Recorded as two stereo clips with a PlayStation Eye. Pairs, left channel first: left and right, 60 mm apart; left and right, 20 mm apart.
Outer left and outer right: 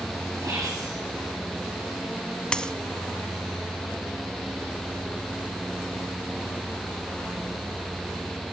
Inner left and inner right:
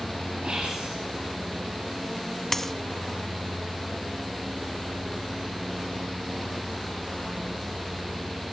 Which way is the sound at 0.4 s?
70° right (ahead or behind).